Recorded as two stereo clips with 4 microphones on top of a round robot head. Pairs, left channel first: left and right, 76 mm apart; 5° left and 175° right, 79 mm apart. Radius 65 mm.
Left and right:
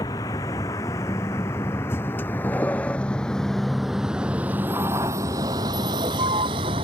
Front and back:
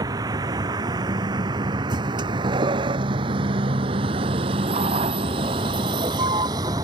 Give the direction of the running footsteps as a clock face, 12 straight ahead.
I don't hear running footsteps.